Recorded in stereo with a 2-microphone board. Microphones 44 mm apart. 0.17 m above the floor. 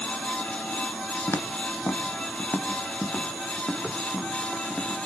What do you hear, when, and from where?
1.3 s footsteps: 65° left (ahead or behind), 1.9 m; by 5.0 s 35° left (ahead or behind), 6 m